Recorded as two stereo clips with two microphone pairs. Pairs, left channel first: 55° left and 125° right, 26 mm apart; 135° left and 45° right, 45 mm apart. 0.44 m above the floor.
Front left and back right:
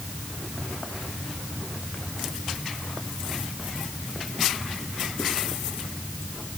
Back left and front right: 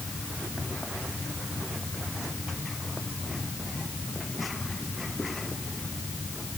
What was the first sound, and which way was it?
Only background noise.